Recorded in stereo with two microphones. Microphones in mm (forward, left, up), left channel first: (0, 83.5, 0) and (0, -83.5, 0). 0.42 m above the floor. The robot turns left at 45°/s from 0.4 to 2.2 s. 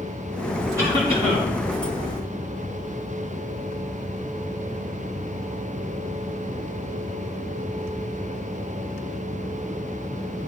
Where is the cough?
20° right, 3 m; by 1.5 s 50° right, 3 m.